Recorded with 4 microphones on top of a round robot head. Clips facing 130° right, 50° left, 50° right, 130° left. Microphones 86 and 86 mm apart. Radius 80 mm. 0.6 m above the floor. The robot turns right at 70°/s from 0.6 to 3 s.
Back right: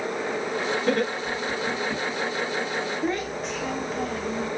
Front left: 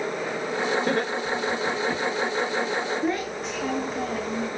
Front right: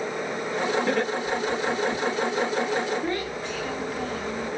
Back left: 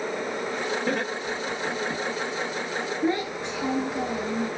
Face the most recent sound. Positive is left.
turn(degrees=140)